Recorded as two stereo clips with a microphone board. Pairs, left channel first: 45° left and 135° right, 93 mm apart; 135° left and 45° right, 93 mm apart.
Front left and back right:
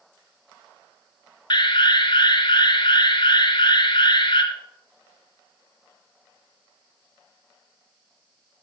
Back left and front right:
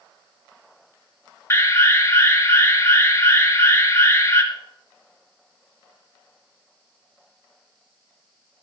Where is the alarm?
75° left, 2.5 m.